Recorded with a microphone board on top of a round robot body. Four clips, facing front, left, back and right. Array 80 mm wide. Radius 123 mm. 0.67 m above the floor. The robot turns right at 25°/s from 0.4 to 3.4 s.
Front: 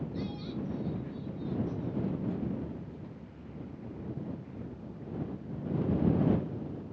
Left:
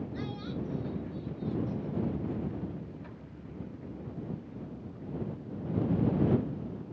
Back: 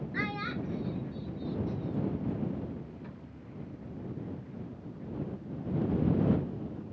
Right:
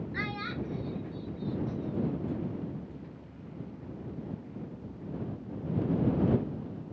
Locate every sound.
0.1 s a child speaking: 145° right; by 2.2 s 100° right